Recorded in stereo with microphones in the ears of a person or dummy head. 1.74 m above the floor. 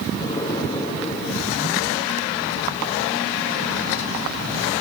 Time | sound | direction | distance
0.1 | an explosion | 20° left (ahead or behind) | 4 m